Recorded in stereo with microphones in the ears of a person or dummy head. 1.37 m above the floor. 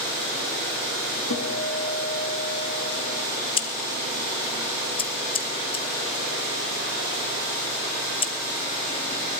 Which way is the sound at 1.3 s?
85° left.